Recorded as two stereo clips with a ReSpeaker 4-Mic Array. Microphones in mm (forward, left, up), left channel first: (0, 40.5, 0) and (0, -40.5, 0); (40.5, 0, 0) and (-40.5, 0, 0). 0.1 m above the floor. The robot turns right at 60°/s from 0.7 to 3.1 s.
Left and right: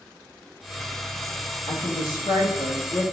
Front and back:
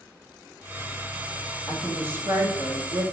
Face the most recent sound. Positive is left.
turn(degrees=180)